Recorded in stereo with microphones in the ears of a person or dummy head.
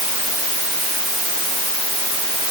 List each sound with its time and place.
Only background noise.